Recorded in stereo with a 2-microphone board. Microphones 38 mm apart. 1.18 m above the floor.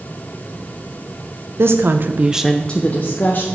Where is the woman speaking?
75° right (ahead or behind), 0.9 m; by 3.4 s 50° left (ahead or behind), 1.3 m.